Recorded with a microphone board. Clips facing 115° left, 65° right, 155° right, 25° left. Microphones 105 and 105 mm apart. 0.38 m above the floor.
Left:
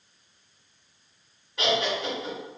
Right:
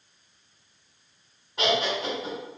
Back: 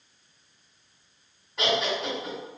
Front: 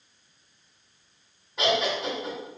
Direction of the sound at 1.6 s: 50° right.